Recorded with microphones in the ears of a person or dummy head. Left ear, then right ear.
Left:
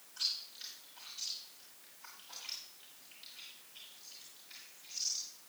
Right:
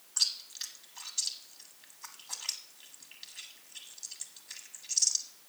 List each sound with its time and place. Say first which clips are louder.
0.2 s chewing: right 6 dB; 55° right (ahead or behind), 1.5 m